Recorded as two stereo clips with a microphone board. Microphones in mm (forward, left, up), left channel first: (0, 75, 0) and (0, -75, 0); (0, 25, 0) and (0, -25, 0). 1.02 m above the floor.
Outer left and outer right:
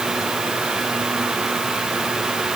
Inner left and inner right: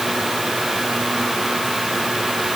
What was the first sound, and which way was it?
Only background noise.